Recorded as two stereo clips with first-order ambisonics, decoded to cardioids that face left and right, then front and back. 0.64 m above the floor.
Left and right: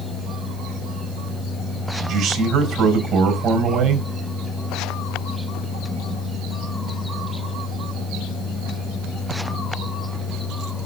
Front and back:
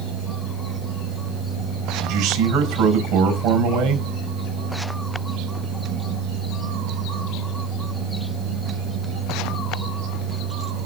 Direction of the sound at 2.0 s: 145° right.